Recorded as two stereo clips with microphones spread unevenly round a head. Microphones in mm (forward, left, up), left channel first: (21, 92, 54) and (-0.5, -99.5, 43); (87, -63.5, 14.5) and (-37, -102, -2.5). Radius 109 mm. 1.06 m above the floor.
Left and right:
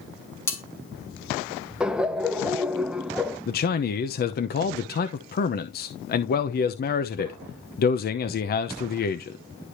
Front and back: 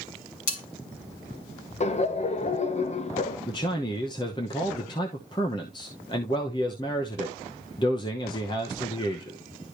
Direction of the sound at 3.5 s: 80° left.